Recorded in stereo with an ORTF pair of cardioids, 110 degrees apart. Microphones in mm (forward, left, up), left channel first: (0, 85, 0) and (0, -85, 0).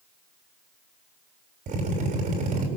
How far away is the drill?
About 7 m.